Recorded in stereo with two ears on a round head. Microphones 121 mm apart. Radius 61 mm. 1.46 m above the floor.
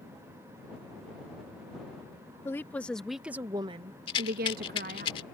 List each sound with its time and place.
2.5 s a woman speaking: 20° left (ahead or behind); by 5.1 s 75° right (ahead or behind)
4.1 s a rattle: 40° left (ahead or behind)